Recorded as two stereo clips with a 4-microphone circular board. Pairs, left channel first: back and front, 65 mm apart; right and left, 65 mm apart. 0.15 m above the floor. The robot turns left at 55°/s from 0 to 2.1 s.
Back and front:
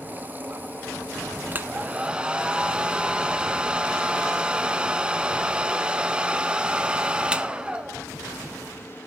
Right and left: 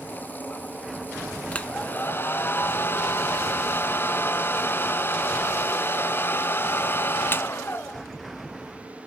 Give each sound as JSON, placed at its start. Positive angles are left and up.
{"t": 1.5, "sound": "a hair dryer", "azimuth_deg": -30, "distance_m": 0.5}